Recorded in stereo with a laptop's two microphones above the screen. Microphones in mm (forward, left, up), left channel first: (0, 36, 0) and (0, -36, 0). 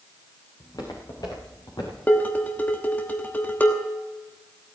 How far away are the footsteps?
About 5 m.